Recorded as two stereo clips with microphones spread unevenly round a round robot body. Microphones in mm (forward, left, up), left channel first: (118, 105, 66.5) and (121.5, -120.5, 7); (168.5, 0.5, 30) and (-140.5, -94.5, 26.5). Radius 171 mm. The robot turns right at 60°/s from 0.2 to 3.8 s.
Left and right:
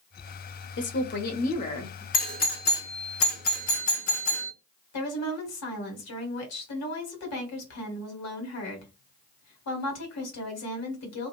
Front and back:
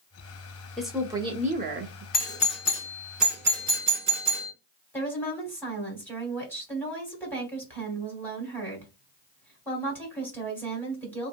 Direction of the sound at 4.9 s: 100° left.